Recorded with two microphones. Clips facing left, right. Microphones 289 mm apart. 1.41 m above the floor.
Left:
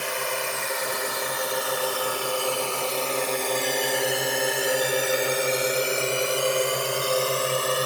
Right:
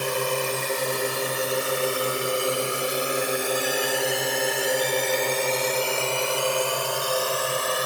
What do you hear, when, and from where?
0.0 s a drone: 45° right (ahead or behind); by 7.9 s 30° left (ahead or behind)